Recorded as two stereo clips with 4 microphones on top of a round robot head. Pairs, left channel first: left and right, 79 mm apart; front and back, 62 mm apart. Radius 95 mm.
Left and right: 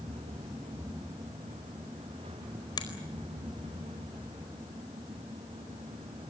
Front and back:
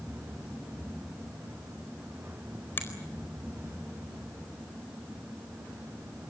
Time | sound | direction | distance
2.8 | a finger snap | 55° left | 4.5 m